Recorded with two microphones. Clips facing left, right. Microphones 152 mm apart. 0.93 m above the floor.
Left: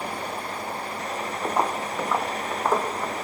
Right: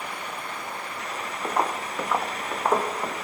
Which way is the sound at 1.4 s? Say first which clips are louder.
Left 1 dB; 10° left (ahead or behind).